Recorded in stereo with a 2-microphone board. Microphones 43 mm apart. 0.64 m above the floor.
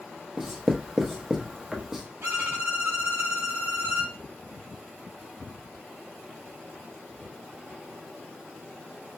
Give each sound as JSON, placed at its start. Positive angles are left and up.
{"t": 0.4, "sound": "writing", "side_deg": -10, "distance_m": 0.7}
{"t": 2.2, "sound": "a violin", "side_deg": -80, "distance_m": 1.0}